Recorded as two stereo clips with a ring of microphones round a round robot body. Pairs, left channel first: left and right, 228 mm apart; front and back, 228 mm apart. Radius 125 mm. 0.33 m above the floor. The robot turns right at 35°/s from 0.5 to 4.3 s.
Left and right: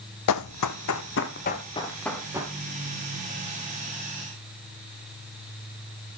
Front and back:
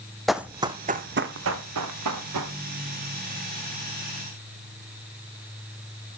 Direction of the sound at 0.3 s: 90° left.